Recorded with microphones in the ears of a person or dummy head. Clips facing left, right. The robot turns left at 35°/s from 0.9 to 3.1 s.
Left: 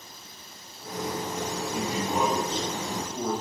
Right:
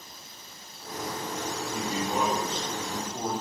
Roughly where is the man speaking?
Ahead left.